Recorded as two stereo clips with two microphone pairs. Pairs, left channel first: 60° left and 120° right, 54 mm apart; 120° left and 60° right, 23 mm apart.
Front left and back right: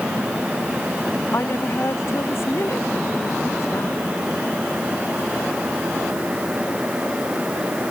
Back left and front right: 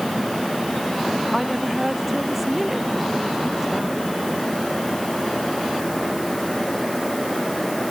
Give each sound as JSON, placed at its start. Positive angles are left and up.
{"t": 1.3, "sound": "a woman speaking", "azimuth_deg": 20}